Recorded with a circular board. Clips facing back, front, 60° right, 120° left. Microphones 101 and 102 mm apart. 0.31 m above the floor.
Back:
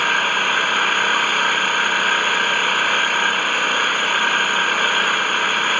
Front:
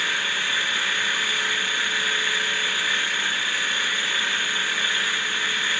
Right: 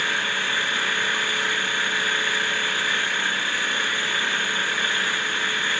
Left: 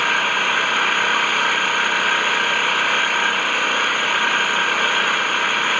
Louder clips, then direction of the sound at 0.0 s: Back 9 dB, left 7 dB; 150° left.